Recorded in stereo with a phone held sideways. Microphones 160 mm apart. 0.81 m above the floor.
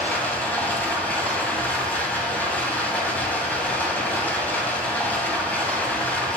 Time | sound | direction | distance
0.0 | running water | 10° left (ahead or behind) | 2 m